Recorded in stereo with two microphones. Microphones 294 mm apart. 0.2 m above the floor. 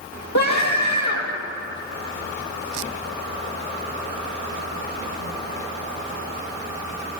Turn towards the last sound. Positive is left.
turn(degrees=65)  # may be behind; listen again after turning